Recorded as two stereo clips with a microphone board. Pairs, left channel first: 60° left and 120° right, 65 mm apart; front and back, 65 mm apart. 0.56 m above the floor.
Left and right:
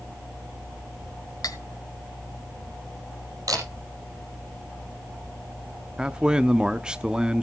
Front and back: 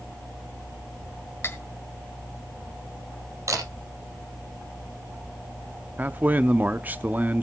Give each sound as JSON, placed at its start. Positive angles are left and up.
{"t": 1.4, "sound": "cutlery clinking", "azimuth_deg": 50, "distance_m": 1.4}
{"t": 3.5, "sound": "a camera shutter", "azimuth_deg": -145, "distance_m": 5.0}
{"t": 6.0, "sound": "a man speaking", "azimuth_deg": 180, "distance_m": 0.6}